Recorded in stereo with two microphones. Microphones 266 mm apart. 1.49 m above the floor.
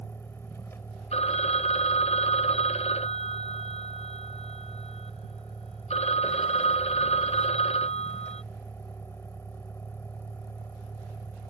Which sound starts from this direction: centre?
A vehicle, at 0.0 s.